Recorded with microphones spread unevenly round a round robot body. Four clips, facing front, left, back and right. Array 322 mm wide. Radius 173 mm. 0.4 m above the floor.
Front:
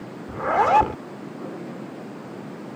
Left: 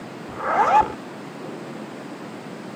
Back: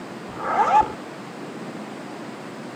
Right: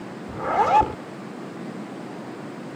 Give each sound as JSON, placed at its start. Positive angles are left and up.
{"t": 0.3, "sound": "a zipper", "azimuth_deg": -30}